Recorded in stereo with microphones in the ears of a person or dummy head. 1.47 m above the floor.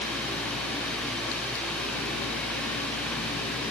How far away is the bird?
I don't hear a bird.